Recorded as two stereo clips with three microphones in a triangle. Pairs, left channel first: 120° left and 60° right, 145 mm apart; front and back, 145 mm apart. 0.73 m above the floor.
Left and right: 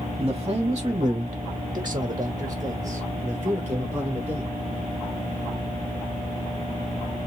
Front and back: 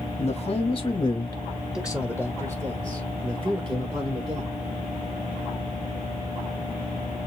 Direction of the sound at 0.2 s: 10° right.